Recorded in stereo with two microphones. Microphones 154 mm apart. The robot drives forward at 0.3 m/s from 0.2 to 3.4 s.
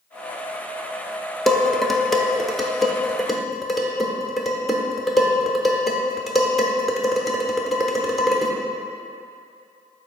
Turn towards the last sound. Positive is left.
turn(degrees=0)  # may be behind; listen again after turning